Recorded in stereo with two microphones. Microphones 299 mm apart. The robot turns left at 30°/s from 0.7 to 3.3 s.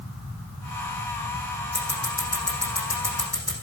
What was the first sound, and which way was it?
Scissors, 55° left (ahead or behind).